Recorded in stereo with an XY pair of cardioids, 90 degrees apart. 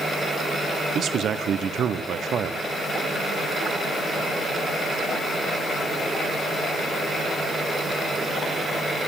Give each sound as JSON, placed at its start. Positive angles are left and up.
{"t": 0.9, "sound": "a man speaking", "azimuth_deg": -65, "distance_m": 1.2}